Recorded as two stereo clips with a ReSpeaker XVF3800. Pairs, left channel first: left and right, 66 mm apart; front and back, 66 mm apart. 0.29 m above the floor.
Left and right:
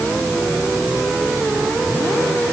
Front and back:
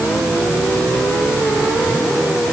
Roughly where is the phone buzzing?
I don't hear a phone buzzing.